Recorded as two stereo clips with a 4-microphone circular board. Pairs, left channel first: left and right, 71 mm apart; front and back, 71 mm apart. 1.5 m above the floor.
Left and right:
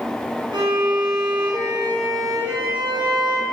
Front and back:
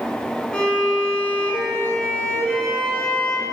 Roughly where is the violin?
Right.